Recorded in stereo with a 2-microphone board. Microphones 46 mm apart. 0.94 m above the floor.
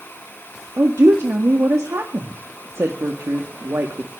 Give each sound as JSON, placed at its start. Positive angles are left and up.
{"t": 0.8, "sound": "a woman speaking", "side_deg": -70, "distance_m": 1.8}